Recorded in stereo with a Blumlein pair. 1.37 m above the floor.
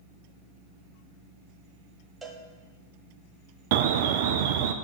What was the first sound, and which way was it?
A cowbell, 10° right.